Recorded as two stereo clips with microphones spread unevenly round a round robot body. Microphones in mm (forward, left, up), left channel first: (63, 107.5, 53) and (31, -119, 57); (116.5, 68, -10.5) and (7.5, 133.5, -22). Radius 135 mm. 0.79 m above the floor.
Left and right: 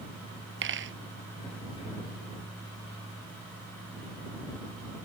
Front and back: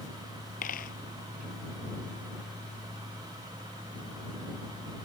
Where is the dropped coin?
60° right.